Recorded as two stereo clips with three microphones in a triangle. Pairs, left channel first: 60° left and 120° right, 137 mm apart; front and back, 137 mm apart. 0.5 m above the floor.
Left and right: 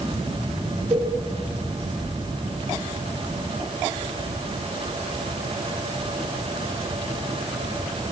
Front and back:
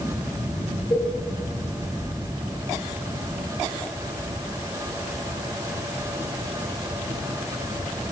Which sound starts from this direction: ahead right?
A cowbell, at 0.9 s.